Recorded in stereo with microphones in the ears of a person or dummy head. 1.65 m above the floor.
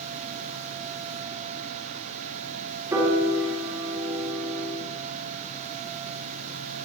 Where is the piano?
15° right (ahead or behind), 3.5 m.